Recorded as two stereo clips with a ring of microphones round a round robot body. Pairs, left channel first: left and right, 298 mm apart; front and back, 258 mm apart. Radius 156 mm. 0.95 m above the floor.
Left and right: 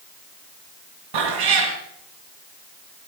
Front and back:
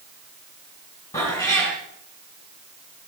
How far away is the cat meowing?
About 3.5 m.